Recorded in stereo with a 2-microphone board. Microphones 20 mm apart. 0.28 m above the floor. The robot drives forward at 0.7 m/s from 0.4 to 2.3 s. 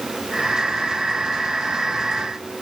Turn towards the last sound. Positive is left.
No sound to turn to.